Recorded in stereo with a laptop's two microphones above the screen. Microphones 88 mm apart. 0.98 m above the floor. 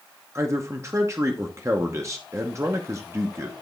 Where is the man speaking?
35° right (ahead or behind), 0.8 m.